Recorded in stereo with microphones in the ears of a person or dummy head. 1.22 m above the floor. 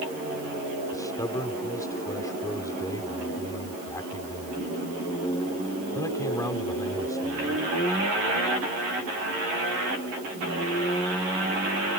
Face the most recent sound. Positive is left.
turn(degrees=20)  # may be behind; listen again after turning